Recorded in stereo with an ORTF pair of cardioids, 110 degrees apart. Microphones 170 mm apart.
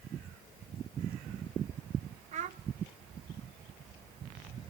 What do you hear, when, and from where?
2.3 s a child speaking: 45° right, 0.5 m